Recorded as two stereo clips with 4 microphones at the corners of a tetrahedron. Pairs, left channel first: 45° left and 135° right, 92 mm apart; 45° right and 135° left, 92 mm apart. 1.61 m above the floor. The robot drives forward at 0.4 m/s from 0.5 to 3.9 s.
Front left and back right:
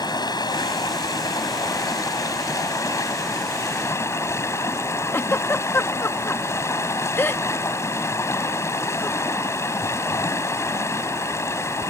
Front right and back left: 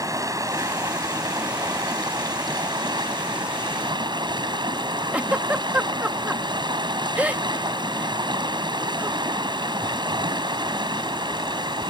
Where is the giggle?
75° left.